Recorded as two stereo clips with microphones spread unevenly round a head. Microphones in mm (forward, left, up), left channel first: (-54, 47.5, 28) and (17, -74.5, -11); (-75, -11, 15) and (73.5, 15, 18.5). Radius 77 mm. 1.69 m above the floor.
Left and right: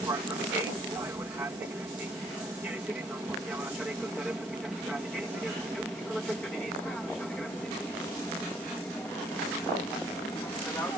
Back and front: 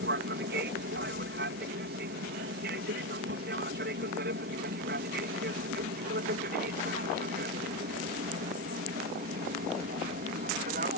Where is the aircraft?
15° left; by 11.0 s 40° left.